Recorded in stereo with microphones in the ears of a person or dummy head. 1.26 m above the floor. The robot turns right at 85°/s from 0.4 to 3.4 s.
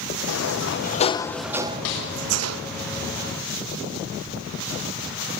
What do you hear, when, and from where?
0.3 s a sliding door: 90° left, 0.9 m; by 2.6 s 80° right, 0.9 m
1.9 s a snare drum: 70° left (ahead or behind), 8.5 m; by 2.1 s 85° left, 8.5 m